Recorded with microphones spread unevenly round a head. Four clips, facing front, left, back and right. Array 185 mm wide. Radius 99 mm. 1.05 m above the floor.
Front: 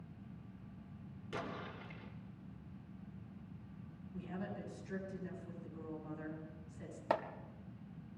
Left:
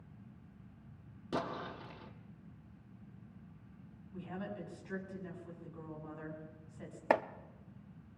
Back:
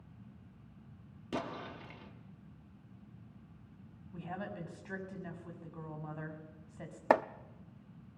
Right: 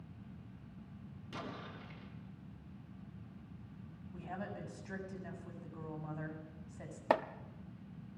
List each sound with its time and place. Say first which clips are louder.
1.3 s an explosion: left 8 dB, back 5 dB; 130° left, 2 m
4.1 s a woman speaking: left 1 dB, back 3 dB; 150° right, 6.5 m
7.1 s chopping: left 1 dB, back 8 dB; straight behind, 0.6 m